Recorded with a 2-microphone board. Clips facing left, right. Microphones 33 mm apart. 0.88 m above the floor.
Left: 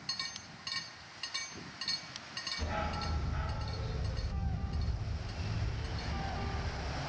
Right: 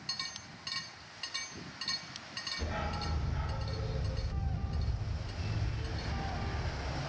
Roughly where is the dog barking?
Left.